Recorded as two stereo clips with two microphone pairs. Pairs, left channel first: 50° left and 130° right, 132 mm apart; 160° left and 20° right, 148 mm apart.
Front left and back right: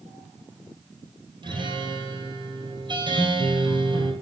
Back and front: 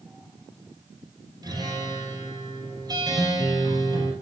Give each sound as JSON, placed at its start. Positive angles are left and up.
{"t": 1.4, "sound": "a guitar", "azimuth_deg": -80, "distance_m": 2.5}